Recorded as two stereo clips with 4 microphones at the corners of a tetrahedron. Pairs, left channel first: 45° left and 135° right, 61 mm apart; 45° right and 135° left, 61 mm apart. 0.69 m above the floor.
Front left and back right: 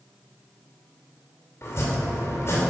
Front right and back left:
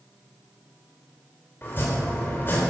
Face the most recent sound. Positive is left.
turn(degrees=5)